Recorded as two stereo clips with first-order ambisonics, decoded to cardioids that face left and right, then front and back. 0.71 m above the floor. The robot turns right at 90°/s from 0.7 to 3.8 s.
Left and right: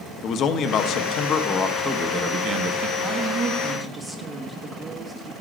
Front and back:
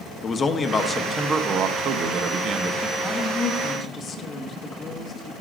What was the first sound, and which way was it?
A man speaking, 70° left.